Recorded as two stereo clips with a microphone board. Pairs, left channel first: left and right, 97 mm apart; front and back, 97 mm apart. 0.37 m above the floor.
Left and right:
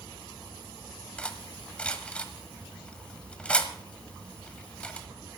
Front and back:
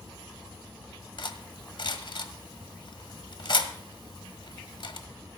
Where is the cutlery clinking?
15° left, 1.4 m.